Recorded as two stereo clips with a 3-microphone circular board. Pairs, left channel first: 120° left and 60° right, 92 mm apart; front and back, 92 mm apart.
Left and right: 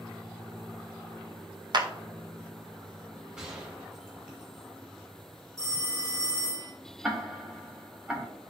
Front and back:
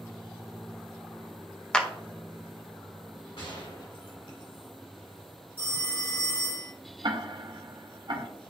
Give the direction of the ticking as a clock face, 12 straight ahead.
5 o'clock.